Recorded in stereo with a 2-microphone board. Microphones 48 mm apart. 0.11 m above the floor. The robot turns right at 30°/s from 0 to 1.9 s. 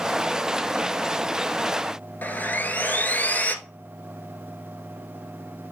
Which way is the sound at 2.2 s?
40° left (ahead or behind).